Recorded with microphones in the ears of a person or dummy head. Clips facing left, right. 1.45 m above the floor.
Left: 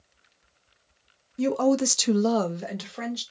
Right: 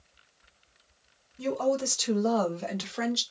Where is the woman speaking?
75° left (ahead or behind), 1.0 m; by 3.2 s 15° right (ahead or behind), 1.0 m.